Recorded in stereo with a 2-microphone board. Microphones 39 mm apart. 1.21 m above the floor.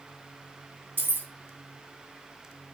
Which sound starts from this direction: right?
Keys jangling, at 1.0 s.